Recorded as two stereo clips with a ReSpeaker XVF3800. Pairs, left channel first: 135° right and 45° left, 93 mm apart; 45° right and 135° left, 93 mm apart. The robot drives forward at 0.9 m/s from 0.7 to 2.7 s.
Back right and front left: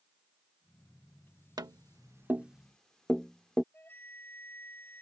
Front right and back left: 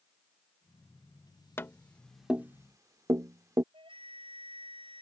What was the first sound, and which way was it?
Tapping, 15° left.